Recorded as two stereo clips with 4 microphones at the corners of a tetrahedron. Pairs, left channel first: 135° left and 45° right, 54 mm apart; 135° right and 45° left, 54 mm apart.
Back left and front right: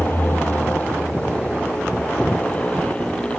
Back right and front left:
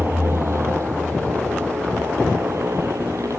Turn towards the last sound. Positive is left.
turn(degrees=65)